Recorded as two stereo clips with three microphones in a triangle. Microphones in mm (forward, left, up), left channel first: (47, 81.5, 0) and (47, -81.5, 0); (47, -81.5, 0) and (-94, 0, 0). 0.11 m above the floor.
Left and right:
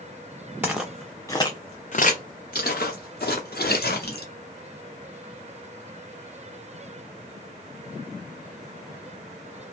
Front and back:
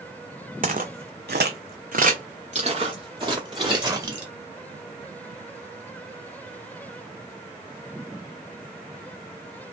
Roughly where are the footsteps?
Behind.